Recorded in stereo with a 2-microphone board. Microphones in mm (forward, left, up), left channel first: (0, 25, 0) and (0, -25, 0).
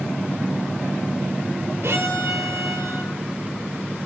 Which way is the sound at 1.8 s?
65° right (ahead or behind).